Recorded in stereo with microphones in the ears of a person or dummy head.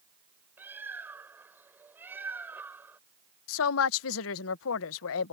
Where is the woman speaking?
75° left (ahead or behind).